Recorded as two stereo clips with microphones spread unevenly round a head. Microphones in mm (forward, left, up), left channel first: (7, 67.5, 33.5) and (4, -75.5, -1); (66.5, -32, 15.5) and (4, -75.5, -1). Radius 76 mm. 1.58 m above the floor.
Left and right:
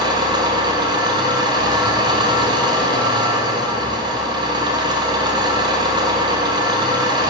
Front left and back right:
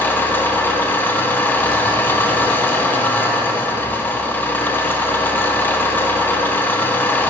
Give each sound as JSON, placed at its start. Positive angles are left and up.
{"t": 0.0, "sound": "an engine running", "azimuth_deg": -25, "distance_m": 0.9}